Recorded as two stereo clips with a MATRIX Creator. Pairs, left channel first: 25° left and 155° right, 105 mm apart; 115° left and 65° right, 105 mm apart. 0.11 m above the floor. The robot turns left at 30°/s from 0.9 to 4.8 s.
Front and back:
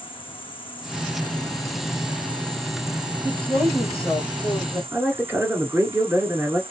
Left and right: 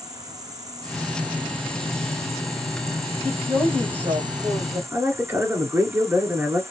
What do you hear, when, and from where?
0.0 s an insect: 15° right, 0.9 m; by 6.7 s 130° right, 0.9 m
3.2 s a woman speaking: 30° right, 3.5 m; by 4.8 s 75° right, 3.5 m
4.9 s a man speaking: 110° right, 1.7 m